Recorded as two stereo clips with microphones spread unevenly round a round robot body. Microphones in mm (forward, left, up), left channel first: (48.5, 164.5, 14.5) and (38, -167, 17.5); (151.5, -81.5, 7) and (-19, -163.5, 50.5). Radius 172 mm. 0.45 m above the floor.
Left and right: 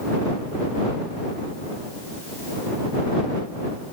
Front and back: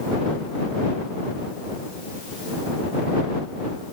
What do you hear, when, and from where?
Only background noise.